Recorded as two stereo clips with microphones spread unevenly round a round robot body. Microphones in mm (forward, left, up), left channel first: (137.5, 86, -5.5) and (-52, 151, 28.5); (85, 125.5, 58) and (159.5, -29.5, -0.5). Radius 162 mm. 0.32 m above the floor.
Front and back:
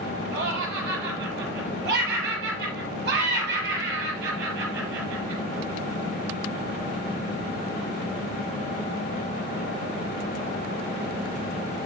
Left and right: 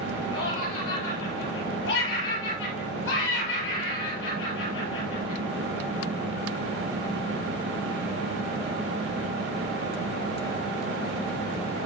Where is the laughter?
130° left, 7.5 m.